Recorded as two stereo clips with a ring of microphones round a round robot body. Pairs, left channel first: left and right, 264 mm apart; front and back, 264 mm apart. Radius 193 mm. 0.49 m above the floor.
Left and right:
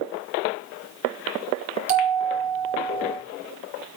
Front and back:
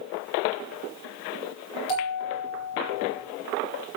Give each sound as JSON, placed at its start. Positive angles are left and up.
{"t": 1.9, "sound": "a bell", "azimuth_deg": -55, "distance_m": 3.0}